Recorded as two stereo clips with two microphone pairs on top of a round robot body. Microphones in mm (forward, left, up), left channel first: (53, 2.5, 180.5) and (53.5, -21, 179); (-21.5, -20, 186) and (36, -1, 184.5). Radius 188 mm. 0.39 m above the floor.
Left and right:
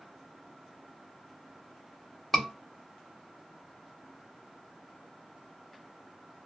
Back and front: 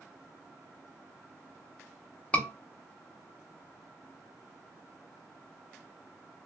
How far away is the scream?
About 1.3 m.